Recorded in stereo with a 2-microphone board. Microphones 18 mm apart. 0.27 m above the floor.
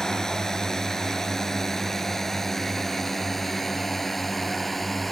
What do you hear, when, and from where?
0.0 s a drone: 30° left (ahead or behind); by 5.1 s 5° left (ahead or behind)